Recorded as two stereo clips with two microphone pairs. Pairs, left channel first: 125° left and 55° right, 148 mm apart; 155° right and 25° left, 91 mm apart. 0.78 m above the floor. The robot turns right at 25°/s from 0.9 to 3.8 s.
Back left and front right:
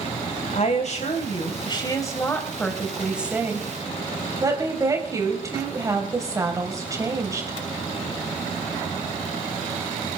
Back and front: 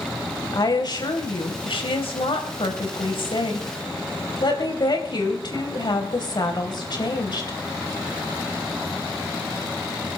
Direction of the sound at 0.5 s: 165° left.